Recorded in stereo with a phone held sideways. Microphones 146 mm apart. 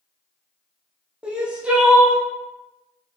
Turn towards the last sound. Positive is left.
turn(degrees=-5)  # may be behind; listen again after turning